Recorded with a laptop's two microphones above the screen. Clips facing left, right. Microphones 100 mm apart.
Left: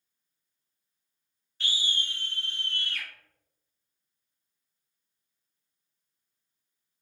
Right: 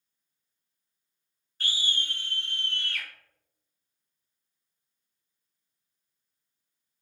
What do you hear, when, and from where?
1.6 s a scream: 40° right (ahead or behind), 0.7 m; by 3.1 s 60° right (ahead or behind), 1.9 m